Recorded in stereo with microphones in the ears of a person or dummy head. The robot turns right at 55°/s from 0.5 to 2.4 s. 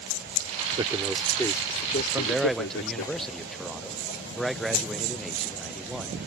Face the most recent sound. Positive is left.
turn(degrees=5)  # may be behind; listen again after turning